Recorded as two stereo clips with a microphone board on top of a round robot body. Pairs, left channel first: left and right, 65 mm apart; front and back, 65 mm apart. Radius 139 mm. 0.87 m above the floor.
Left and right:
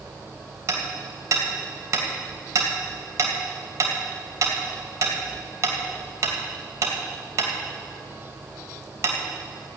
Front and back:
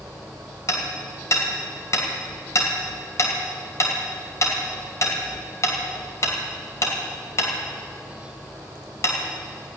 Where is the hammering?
45° right, 2.5 m.